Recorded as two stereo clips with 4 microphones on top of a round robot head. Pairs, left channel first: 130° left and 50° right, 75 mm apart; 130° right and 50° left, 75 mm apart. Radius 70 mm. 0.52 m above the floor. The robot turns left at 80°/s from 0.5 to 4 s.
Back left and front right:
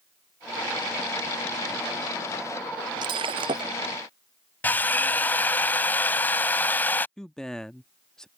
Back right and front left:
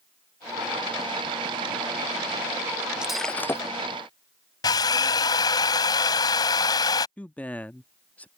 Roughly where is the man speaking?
Behind.